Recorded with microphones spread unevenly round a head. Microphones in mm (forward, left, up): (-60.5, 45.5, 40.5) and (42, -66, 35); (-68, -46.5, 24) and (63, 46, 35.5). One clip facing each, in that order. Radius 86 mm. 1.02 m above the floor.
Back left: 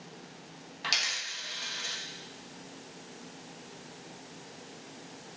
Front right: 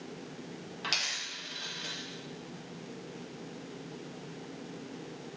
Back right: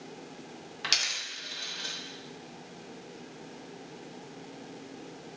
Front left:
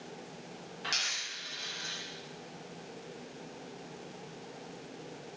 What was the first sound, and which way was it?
A dropped coin, 145° right.